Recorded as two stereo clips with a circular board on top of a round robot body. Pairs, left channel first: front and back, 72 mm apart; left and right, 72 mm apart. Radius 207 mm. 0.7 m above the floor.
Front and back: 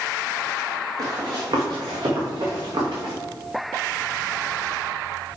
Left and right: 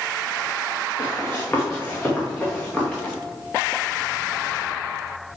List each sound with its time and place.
1.0 s running footsteps: 150° left, 3.5 m; by 3.1 s 175° left, 4.5 m